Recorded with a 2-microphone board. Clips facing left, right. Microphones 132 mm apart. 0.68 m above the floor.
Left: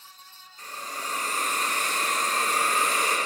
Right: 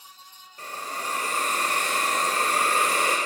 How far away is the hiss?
About 1.3 m.